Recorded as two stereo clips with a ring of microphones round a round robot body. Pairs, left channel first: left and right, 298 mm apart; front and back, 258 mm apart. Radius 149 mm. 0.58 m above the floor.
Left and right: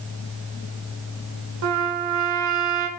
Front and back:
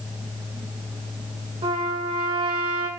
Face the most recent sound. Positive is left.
turn(degrees=-110)